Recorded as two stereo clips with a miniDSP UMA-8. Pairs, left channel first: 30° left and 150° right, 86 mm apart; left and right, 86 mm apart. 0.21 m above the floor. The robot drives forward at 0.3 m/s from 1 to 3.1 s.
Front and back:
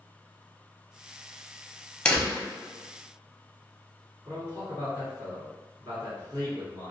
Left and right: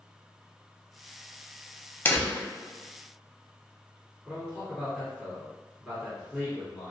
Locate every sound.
2.0 s a door slam: 90° left, 0.7 m; by 2.5 s 115° left, 0.7 m
4.2 s a man speaking: 170° right, 1.6 m